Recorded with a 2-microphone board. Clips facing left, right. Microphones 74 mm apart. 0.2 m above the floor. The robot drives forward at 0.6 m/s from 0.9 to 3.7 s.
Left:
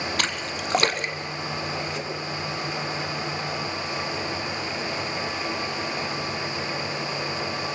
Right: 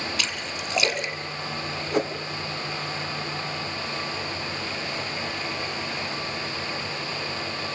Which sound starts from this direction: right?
A whoosh, at 1.9 s.